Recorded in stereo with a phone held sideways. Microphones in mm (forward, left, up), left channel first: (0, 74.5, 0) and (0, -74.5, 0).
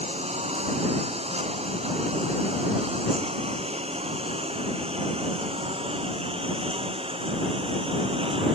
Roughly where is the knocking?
No knocking in this recording.